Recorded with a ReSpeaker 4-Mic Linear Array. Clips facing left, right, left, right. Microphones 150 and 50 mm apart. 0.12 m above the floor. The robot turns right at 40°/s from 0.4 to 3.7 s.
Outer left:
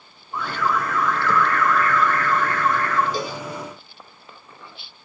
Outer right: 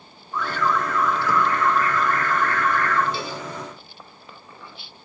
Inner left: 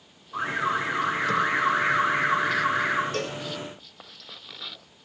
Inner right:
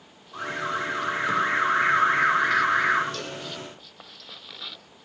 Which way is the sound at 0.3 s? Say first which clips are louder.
Even, inner left 3 dB; 160° left.